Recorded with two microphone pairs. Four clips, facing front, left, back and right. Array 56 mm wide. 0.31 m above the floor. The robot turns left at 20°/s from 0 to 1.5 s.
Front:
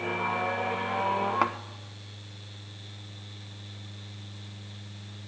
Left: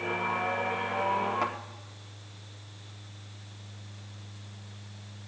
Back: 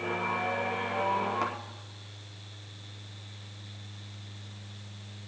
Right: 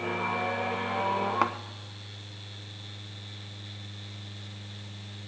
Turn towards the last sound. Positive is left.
turn(degrees=-40)